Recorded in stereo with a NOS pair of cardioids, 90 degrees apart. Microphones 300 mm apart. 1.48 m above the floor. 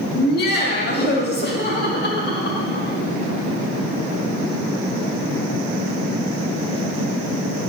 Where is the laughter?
35° left, 2.5 m.